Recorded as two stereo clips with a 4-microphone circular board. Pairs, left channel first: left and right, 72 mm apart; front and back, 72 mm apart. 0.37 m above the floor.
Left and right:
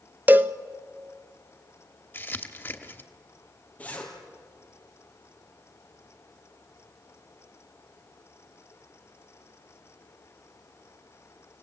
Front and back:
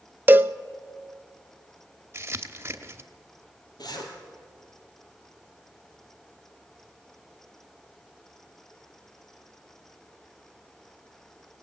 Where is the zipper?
20° left, 3.5 m.